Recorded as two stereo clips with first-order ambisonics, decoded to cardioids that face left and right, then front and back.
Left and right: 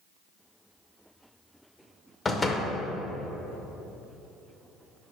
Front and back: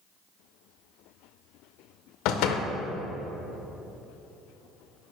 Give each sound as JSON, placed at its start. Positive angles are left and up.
{"t": 2.2, "sound": "a door slam", "azimuth_deg": 20, "distance_m": 0.5}